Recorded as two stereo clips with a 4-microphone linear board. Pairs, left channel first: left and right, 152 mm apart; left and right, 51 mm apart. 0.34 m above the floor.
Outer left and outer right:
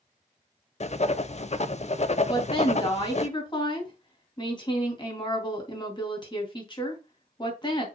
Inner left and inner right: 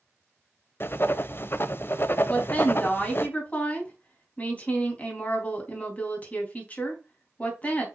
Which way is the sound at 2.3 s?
30° left (ahead or behind).